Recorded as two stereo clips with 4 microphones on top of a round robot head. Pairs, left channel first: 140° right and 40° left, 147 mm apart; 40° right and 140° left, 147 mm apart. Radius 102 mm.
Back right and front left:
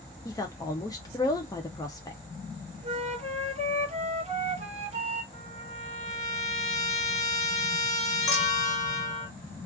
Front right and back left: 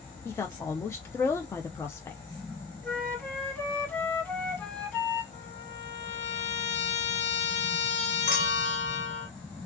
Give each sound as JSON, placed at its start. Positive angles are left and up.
{"t": 0.2, "sound": "a woman speaking", "azimuth_deg": -100, "distance_m": 0.7}
{"t": 2.8, "sound": "a flute", "azimuth_deg": 30, "distance_m": 1.2}
{"t": 5.3, "sound": "a trumpet", "azimuth_deg": -90, "distance_m": 0.6}
{"t": 8.3, "sound": "a clink", "azimuth_deg": -70, "distance_m": 1.2}